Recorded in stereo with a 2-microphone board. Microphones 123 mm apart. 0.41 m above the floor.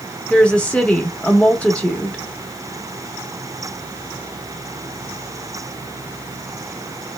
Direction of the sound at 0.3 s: 10° left (ahead or behind).